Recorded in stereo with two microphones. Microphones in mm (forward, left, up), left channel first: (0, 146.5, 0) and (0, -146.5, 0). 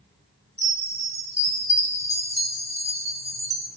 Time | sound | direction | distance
0.6 | a chime | 50° right (ahead or behind) | 1.7 m